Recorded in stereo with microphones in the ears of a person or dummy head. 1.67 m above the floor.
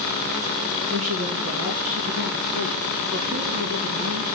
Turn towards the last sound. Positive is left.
turn(degrees=-80)